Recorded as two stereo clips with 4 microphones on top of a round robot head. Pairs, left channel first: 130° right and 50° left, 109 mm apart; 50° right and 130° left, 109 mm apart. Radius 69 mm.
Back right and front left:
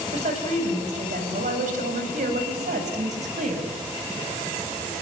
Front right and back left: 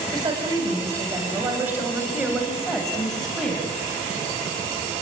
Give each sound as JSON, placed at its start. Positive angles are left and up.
{"t": 0.1, "sound": "a woman speaking", "azimuth_deg": 80, "distance_m": 6.0}